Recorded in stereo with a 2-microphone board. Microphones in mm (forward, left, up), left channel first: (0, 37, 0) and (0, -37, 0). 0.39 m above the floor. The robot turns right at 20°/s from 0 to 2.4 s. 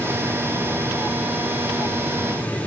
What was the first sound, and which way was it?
Only background noise.